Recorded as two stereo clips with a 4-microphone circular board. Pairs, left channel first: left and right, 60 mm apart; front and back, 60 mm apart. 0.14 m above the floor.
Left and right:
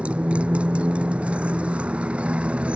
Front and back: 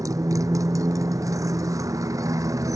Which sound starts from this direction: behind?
A motorcycle, at 0.0 s.